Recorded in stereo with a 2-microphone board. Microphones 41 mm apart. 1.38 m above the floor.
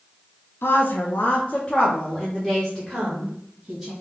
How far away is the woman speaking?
About 0.6 m.